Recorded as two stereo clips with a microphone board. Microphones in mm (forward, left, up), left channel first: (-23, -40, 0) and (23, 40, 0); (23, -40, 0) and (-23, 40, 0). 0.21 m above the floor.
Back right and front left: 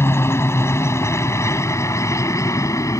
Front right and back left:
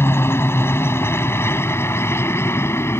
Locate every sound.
0.0 s a helicopter: 95° right; by 3.0 s 100° right